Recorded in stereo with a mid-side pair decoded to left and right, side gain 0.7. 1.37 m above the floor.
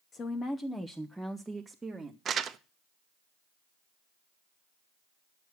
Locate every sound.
0.1 s a woman speaking: 35° left, 0.9 m; by 2.1 s 15° right, 1.8 m
2.2 s crumpling: 35° right, 1.0 m